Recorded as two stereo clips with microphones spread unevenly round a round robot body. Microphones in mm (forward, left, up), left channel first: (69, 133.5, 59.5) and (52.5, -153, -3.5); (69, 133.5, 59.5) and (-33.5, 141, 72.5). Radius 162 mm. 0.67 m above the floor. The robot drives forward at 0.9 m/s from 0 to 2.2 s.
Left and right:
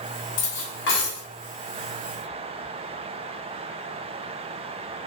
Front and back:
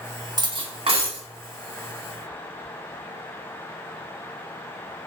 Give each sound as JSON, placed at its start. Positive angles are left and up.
{"t": 0.4, "sound": "cutlery clinking", "azimuth_deg": 120, "distance_m": 0.7}